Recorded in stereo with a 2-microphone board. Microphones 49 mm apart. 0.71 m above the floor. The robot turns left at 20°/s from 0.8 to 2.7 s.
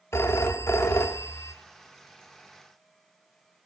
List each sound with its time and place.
0.1 s a phone ringing: 65° left (ahead or behind), 0.6 m; by 1.5 s 80° left, 0.6 m